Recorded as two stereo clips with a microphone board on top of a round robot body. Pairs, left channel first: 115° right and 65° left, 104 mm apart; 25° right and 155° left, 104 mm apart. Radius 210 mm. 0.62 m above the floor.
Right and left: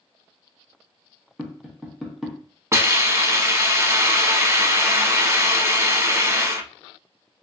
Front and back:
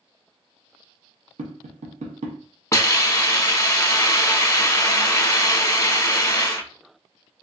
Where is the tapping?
155° left, 0.7 m.